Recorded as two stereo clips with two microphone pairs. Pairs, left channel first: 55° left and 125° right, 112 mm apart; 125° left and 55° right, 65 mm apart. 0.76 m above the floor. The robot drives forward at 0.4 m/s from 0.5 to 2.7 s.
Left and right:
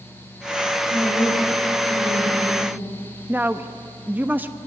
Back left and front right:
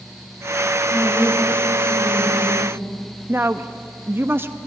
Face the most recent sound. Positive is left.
turn(degrees=-60)